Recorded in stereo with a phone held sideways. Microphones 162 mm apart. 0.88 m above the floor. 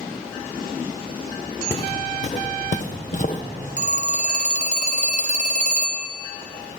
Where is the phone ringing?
50° right (ahead or behind), 0.7 m.